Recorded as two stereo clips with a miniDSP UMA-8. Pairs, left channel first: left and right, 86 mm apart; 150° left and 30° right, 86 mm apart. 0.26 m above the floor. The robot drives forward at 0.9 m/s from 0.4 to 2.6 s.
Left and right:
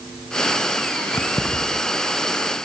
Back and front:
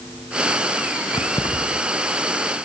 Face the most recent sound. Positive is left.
turn(degrees=165)